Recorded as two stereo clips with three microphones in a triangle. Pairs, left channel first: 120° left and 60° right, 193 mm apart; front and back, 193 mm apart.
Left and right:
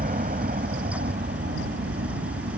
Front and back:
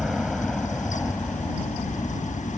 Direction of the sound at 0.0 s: 90° right.